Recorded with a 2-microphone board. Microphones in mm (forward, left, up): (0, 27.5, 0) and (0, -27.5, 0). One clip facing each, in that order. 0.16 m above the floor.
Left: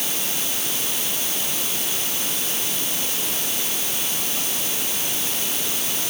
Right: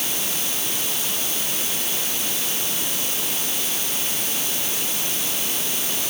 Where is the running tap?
No running tap in this recording.